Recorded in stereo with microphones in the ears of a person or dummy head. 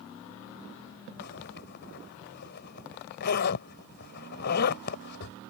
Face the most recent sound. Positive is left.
turn(degrees=50)  # may be behind; listen again after turning